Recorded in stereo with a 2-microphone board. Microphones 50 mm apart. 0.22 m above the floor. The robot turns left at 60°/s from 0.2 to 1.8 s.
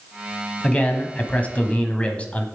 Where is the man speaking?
135° left, 1.2 m; by 2.5 s 65° left, 1.2 m.